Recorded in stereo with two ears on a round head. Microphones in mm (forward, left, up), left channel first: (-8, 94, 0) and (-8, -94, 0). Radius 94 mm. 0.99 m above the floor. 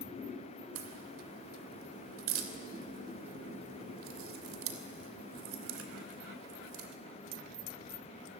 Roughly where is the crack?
Right.